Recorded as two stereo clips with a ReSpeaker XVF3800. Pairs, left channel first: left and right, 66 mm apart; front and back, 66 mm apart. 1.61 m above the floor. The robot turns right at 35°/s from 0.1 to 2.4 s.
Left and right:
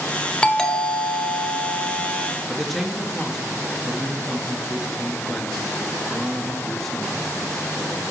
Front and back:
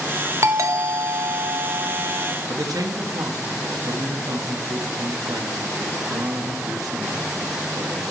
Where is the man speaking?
175° left, 1.3 m.